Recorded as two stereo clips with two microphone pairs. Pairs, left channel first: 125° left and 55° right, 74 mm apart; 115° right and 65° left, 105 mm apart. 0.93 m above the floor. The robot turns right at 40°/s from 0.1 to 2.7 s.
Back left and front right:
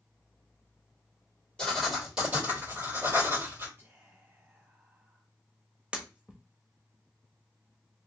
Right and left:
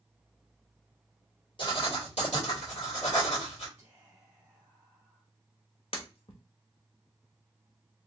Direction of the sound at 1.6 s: 155° right.